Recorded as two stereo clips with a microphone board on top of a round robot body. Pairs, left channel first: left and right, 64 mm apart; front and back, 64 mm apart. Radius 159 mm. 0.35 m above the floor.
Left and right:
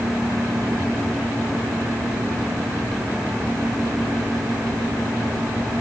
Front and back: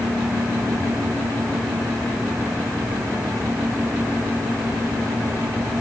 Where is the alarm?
No alarm in this recording.